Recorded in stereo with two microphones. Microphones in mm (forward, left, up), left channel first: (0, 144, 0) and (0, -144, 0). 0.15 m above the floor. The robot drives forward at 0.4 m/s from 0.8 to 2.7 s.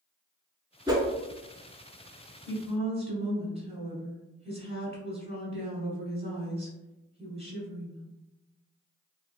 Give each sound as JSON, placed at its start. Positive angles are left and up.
{"t": 0.9, "sound": "a whoosh", "side_deg": -15, "distance_m": 0.7}
{"t": 2.5, "sound": "a woman speaking", "side_deg": -20, "distance_m": 1.1}